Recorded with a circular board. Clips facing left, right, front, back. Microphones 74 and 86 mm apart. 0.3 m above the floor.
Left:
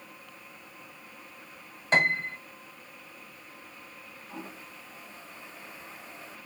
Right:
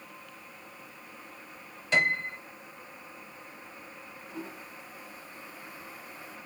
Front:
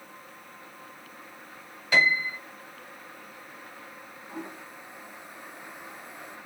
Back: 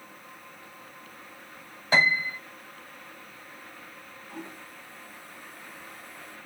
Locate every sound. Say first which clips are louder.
1.9 s a piano: left 2 dB, even; 135° left, 1.9 m
4.3 s a toilet flushing: right 1 dB, front 3 dB; 55° left, 1.7 m